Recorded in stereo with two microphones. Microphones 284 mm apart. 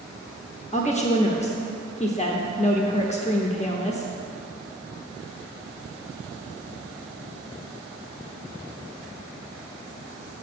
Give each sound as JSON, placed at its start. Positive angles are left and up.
{"t": 0.7, "sound": "a woman speaking", "side_deg": 25, "distance_m": 0.7}